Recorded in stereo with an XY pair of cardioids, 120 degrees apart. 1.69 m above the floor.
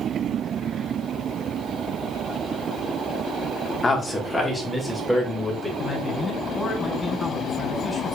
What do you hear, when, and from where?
3.8 s a man speaking: 25° left, 1.7 m; by 5.7 s straight ahead, 3.5 m
5.8 s a man speaking: 5° left, 4.5 m